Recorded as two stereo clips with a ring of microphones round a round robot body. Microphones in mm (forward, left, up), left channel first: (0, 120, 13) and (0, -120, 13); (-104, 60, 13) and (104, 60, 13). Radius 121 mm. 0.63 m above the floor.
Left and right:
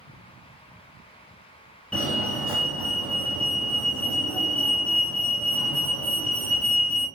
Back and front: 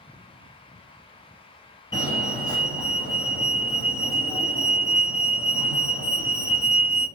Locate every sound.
1.9 s a fire alarm: 160° left, 2.0 m